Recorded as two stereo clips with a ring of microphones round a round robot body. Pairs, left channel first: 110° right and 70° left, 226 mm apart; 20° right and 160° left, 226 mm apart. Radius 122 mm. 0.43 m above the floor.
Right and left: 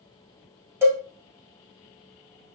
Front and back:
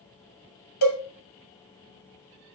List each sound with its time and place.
0.8 s a cowbell: 15° right, 1.4 m